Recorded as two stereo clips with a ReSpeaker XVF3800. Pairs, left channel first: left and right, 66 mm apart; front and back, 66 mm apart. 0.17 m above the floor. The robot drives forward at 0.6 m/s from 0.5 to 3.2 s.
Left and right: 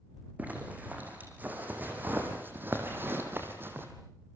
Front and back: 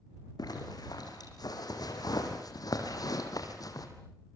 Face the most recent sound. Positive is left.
turn(degrees=-30)